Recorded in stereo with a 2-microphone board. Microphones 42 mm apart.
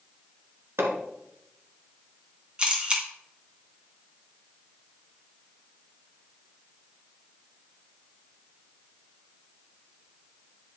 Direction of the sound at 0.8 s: 90° right.